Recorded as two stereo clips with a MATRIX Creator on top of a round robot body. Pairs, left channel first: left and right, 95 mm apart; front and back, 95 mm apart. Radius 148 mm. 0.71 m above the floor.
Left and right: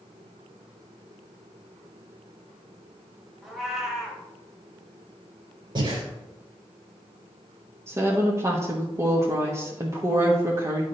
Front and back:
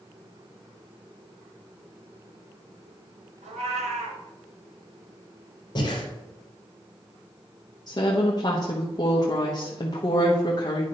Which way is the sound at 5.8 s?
50° right.